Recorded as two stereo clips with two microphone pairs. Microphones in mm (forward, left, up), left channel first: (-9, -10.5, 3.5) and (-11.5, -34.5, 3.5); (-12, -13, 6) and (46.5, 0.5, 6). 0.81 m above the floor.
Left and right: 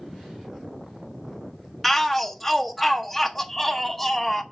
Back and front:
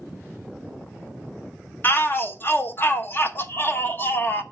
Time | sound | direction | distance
1.8 | a shout | 170° left | 0.9 m